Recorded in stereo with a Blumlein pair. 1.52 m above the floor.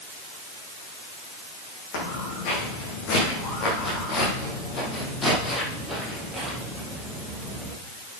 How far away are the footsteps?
About 5 m.